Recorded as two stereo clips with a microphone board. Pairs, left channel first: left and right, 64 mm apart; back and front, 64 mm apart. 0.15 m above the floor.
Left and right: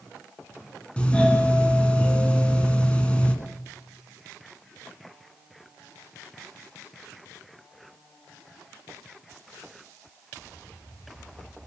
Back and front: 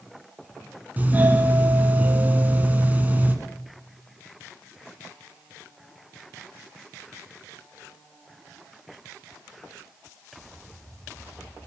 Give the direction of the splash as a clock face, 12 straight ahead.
No splash in this recording.